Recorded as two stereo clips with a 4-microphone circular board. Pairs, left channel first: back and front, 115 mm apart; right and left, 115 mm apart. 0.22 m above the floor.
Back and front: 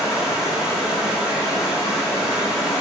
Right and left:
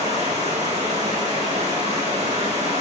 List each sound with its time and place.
0.0 s running water: 85° left, 8 m